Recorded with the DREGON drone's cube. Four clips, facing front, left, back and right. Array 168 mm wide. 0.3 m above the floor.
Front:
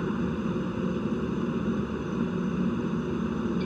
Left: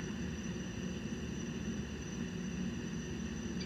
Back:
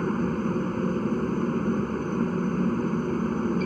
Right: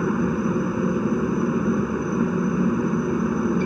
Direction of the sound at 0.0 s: 100° right.